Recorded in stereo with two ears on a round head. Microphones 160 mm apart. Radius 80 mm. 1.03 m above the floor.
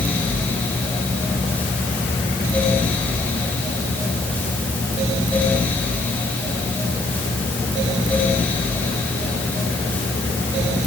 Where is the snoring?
I don't hear snoring.